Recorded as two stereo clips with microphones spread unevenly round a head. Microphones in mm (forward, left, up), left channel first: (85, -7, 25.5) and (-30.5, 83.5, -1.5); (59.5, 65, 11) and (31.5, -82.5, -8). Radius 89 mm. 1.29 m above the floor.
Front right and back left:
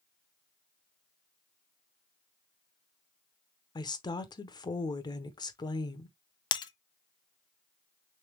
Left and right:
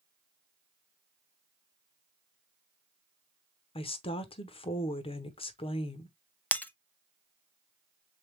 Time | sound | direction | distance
3.8 | a woman speaking | 25° left | 0.9 m
6.5 | breaking glass | 5° left | 0.6 m